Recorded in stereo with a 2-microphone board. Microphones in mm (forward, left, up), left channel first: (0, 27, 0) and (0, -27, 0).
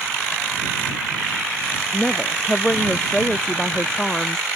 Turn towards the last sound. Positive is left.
turn(degrees=10)  # may be behind; listen again after turning